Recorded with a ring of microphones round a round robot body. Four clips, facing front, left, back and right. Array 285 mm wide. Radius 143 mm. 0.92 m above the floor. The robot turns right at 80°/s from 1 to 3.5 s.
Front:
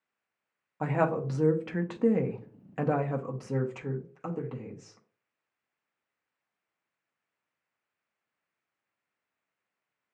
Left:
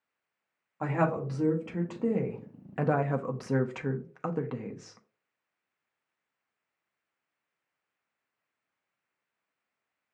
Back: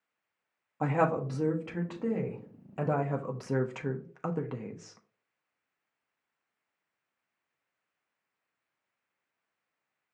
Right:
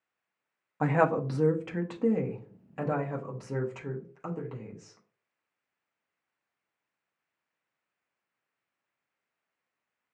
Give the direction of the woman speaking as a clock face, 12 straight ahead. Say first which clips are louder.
Right 3 dB, even; 3 o'clock.